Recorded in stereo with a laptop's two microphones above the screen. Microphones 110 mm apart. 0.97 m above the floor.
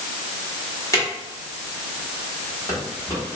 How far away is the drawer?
About 1.2 m.